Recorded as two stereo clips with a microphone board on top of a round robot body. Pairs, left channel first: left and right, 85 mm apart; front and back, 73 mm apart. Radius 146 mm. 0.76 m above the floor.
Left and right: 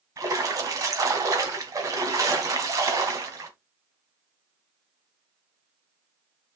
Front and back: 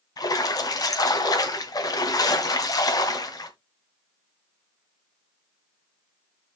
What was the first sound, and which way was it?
A splash, 35° right.